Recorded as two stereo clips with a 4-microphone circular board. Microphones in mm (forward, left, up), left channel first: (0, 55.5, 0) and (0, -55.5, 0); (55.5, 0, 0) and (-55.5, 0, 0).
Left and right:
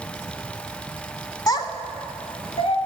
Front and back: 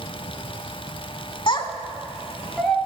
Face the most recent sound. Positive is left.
turn(degrees=85)